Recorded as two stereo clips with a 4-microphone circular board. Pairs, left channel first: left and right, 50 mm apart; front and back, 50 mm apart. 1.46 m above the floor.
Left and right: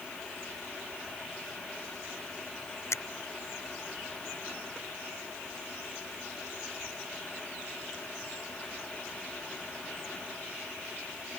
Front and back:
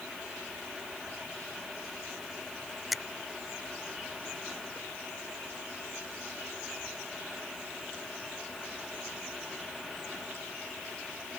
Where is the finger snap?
95° left.